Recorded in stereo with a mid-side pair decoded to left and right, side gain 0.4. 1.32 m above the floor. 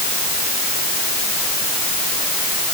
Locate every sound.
Only background noise.